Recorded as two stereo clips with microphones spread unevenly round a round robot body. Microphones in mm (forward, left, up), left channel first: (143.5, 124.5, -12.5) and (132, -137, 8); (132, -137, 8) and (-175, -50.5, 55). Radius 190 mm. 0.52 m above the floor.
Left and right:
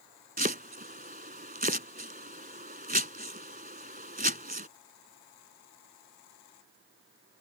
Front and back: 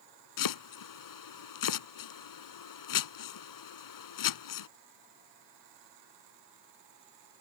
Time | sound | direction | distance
0.4 | chopping | 35° right | ?